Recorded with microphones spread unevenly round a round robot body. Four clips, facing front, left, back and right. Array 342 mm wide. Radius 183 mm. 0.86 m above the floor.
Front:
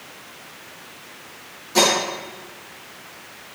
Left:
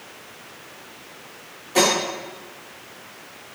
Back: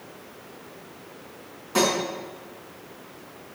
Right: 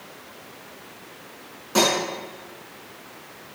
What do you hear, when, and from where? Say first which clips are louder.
1.8 s cutlery clinking: left 1 dB, front 3 dB; 110° right, 6 m